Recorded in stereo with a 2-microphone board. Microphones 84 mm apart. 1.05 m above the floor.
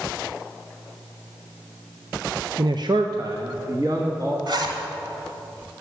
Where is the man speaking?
50° right (ahead or behind), 0.5 m; by 4.4 s 45° right (ahead or behind), 1.9 m.